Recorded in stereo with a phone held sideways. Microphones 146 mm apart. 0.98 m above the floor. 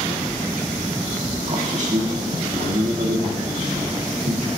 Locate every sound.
1.5 s a man speaking: 55° right (ahead or behind), 1.5 m